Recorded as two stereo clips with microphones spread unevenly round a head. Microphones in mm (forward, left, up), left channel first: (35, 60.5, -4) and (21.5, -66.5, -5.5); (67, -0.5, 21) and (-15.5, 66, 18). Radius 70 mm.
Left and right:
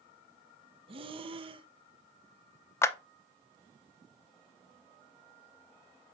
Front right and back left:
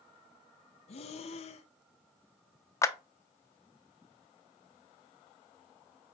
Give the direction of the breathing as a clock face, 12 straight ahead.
2 o'clock.